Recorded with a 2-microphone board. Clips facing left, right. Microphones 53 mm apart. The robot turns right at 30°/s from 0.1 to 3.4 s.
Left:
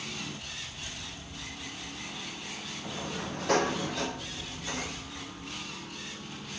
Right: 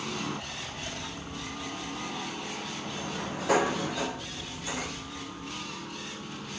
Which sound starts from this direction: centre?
A sliding door, at 2.8 s.